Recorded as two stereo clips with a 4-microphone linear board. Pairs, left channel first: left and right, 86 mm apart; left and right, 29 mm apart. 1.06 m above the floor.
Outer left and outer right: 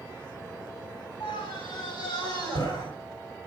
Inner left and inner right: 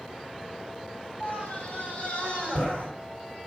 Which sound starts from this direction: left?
A scream, at 1.2 s.